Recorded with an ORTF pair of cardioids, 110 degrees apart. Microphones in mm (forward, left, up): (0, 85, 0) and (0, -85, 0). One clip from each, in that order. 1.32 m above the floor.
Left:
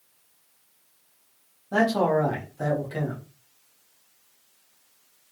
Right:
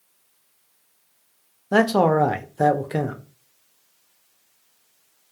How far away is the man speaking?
About 0.6 m.